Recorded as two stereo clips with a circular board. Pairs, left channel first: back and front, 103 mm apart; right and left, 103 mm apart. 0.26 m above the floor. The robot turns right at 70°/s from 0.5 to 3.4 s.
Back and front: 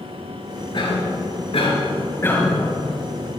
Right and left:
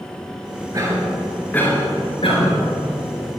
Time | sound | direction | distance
0.7 | a cough | 140° left | 4 m